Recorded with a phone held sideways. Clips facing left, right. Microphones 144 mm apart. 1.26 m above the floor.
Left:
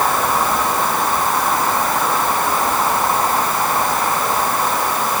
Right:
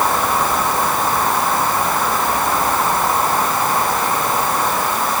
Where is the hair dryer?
I don't hear a hair dryer.